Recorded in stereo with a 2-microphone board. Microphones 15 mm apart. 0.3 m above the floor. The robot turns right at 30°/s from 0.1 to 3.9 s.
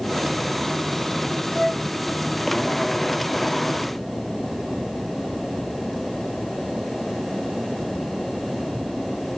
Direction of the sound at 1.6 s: 45° left (ahead or behind).